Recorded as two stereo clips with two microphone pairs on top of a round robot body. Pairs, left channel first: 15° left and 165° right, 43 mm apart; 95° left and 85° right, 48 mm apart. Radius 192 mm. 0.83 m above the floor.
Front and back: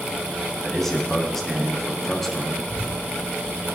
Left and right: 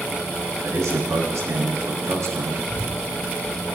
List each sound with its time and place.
0.6 s a man speaking: 70° right, 3 m
2.6 s a child speaking: 155° left, 6 m